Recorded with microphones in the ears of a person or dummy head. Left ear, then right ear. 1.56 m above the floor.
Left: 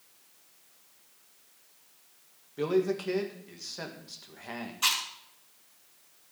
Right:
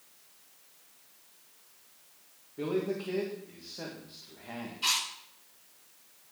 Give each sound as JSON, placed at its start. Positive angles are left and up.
{"t": 2.6, "sound": "a man speaking", "side_deg": 75, "distance_m": 1.7}
{"t": 4.8, "sound": "chewing", "side_deg": 50, "distance_m": 4.0}